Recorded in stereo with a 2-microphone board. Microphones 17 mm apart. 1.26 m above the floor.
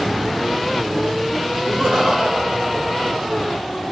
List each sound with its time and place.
1.6 s laughter: 55° right (ahead or behind), 4.5 m; by 3.6 s 85° right, 5 m